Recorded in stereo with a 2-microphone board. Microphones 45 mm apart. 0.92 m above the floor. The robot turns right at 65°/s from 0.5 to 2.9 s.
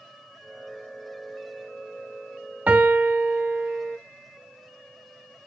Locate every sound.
2.7 s a piano: 35° right (ahead or behind), 0.8 m